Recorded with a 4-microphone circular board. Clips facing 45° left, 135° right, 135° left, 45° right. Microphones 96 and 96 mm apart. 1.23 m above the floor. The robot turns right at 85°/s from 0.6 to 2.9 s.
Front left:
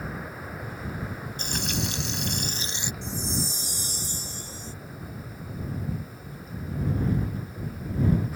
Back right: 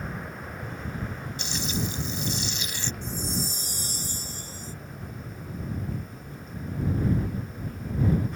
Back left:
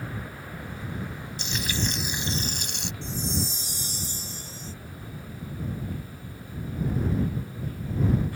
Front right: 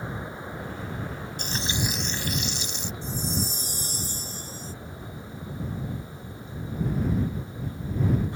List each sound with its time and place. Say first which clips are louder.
1.4 s frying: even, even; 5° right; by 2.9 s 125° left
3.0 s a chime: front left 1 dB, even; 90° right